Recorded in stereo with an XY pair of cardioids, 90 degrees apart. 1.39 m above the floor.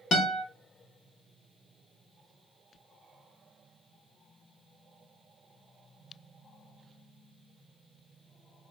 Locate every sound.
0.1 s a guitar: 70° left, 1.2 m